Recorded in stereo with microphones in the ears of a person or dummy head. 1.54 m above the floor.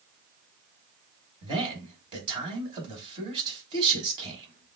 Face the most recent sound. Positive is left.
turn(degrees=-30)  # may be behind; listen again after turning